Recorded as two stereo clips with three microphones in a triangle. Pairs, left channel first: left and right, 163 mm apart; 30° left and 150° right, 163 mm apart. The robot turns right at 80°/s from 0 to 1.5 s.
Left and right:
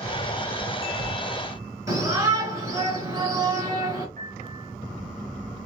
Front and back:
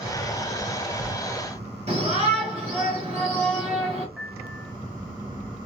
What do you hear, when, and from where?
1.9 s a shout: 150° right, 2.5 m
4.2 s a piano: 65° right, 0.9 m